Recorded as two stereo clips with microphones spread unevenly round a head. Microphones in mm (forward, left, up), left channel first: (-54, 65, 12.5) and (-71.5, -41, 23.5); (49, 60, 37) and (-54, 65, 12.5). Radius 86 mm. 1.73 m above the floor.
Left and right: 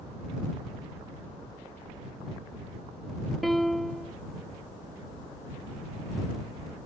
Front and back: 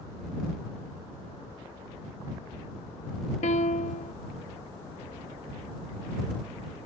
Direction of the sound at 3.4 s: 10° right.